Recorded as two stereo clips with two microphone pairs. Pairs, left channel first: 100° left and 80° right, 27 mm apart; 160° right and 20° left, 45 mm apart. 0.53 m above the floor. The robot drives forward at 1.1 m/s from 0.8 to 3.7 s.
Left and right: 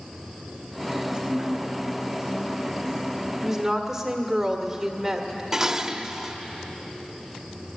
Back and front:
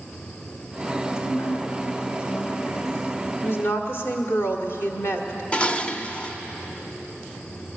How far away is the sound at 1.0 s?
About 2.5 m.